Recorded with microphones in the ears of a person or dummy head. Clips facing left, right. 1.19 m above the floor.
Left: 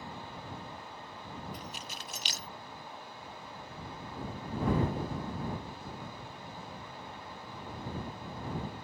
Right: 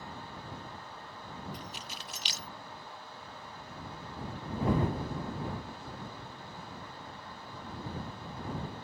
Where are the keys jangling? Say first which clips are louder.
Left 1 dB; 45° left (ahead or behind).